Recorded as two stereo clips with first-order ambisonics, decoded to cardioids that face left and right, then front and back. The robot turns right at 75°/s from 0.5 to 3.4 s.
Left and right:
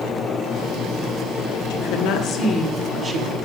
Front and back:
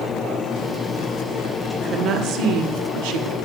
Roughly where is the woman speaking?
Left.